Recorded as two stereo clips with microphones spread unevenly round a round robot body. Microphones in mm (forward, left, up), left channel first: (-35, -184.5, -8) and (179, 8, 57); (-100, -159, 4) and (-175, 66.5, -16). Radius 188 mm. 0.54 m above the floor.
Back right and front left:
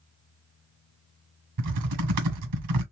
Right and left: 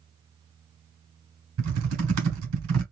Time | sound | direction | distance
1.6 | typing on a keyboard | 75° left | 1.8 m